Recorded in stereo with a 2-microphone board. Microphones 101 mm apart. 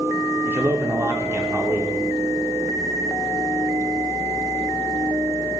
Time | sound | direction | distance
0.5 | a man speaking | 25° right (ahead or behind) | 0.8 m